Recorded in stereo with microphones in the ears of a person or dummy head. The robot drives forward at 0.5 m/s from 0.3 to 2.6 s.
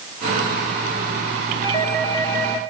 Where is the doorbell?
10° left (ahead or behind), 1.2 m.